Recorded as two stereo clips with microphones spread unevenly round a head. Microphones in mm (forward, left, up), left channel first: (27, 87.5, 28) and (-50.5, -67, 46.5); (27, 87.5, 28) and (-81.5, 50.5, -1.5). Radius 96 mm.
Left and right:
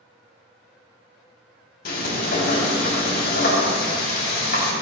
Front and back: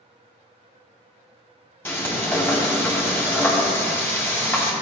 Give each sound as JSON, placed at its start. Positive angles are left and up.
{"t": 1.9, "sound": "frying", "azimuth_deg": 90, "distance_m": 4.5}